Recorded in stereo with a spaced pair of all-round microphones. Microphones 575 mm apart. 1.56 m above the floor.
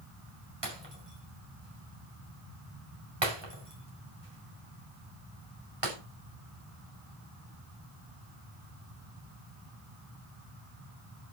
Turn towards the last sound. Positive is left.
turn(degrees=-45)  # may be behind; listen again after turning